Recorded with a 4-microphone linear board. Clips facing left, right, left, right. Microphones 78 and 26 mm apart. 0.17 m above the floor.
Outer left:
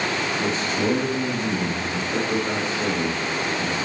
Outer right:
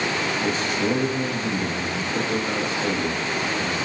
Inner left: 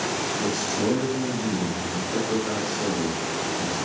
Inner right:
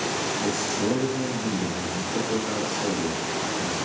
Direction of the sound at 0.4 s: 35° left (ahead or behind).